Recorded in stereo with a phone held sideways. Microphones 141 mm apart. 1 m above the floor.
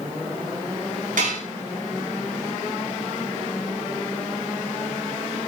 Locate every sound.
1.2 s dishes clattering: 70° right (ahead or behind), 6.5 m